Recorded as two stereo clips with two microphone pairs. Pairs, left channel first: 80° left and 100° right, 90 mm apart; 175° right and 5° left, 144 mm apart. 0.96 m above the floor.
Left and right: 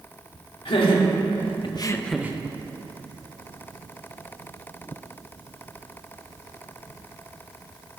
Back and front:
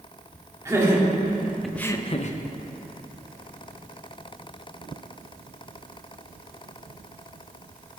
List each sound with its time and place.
0.7 s laughter: 75° left, 2 m; by 2.4 s 155° right, 0.7 m